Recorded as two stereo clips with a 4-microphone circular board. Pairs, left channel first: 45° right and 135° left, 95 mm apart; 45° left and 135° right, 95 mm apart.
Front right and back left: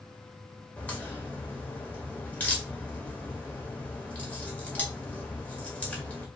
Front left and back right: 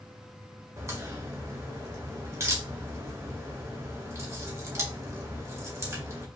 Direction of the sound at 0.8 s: 110° right.